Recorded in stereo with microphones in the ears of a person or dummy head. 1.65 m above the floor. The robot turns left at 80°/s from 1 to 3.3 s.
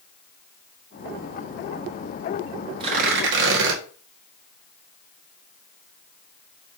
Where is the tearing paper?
30° right, 2 m; by 3.8 s 70° right, 2 m.